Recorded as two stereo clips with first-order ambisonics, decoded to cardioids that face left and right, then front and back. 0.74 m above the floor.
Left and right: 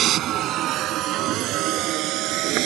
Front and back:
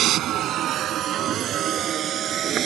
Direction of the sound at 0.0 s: 135° right.